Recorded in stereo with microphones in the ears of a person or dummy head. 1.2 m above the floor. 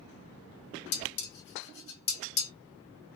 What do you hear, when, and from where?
0.9 s dishes clattering: 80° left, 1.0 m